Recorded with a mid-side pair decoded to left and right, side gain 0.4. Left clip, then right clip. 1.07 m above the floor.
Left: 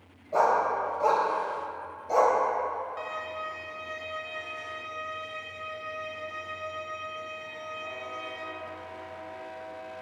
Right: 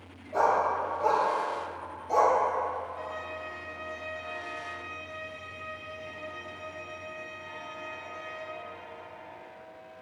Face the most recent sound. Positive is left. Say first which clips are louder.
# left 2 dB
turn(degrees=65)